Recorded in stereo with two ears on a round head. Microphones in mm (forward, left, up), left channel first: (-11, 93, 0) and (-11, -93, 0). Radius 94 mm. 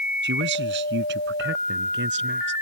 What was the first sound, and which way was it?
A man speaking, 60° right (ahead or behind).